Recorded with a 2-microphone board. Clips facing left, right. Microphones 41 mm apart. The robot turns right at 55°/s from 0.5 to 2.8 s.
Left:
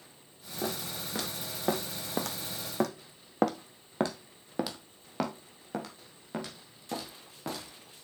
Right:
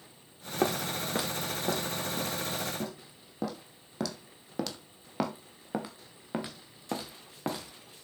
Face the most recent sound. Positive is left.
turn(degrees=-25)  # may be behind; listen again after turning